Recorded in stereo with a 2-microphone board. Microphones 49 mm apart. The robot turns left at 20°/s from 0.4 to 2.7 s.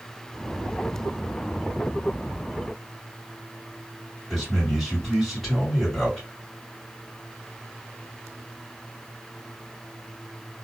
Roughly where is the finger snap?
No finger snap in this recording.